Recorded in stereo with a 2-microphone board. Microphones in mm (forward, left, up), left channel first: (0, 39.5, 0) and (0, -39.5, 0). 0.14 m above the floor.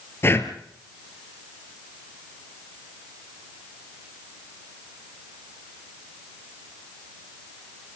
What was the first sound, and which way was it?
Breathing, 30° left (ahead or behind).